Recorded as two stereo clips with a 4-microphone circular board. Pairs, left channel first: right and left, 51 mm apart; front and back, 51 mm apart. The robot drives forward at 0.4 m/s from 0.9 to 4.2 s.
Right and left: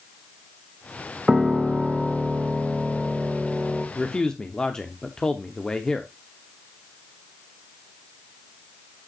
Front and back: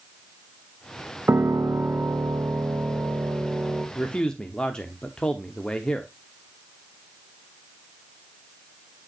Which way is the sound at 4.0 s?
30° right.